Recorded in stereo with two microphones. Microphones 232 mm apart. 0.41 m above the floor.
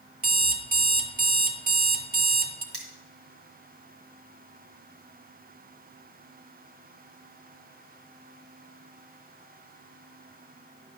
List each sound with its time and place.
0.2 s an alarm clock: 40° right (ahead or behind), 0.8 m
2.7 s cutlery clinking: 70° right (ahead or behind), 1.7 m